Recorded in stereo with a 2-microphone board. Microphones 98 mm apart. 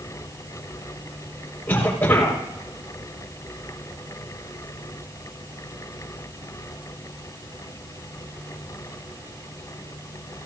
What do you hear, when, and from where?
1.7 s a cough: 20° left (ahead or behind), 5 m